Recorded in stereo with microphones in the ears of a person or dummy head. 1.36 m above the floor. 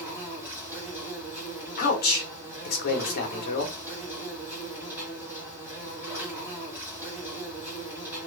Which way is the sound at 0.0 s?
10° right (ahead or behind).